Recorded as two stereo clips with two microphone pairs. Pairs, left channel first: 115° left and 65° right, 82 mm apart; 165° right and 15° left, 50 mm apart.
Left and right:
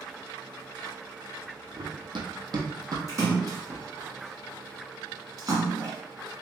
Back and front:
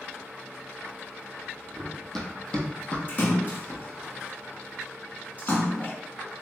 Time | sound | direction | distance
1.8 | running footsteps | 75° right | 1.1 m
3.1 | a splash | 110° right | 1.4 m